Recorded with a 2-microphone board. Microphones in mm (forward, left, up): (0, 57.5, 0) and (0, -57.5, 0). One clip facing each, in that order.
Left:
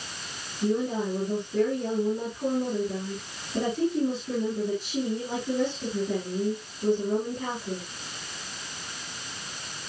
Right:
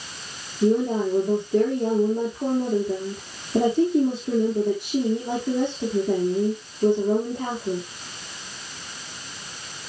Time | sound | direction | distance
0.6 | a woman speaking | 75° right (ahead or behind) | 5.5 m